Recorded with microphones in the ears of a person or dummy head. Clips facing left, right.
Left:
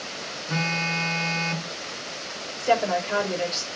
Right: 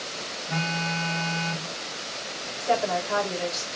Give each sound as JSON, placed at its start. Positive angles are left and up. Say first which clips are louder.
{"t": 0.5, "sound": "a phone buzzing", "louder": "left 1 dB", "side_deg": 50, "distance_m": 2.5}
{"t": 2.6, "sound": "a woman speaking", "louder": "left 2 dB", "side_deg": 40, "distance_m": 3.5}